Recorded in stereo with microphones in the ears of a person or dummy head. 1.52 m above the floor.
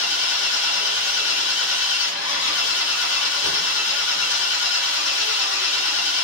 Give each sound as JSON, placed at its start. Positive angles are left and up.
{"t": 0.0, "sound": "an engine running", "side_deg": 70, "distance_m": 2.5}